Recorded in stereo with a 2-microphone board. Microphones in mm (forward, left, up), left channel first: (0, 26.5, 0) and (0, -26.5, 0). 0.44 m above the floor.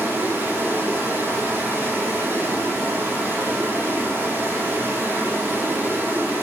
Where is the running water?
40° right (ahead or behind), 7.5 m.